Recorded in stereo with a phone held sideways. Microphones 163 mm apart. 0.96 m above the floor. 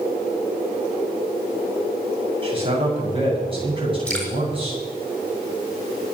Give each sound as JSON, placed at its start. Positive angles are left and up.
{"t": 2.4, "sound": "a man speaking", "side_deg": -35, "distance_m": 7.0}
{"t": 4.1, "sound": "dripping", "side_deg": 5, "distance_m": 4.5}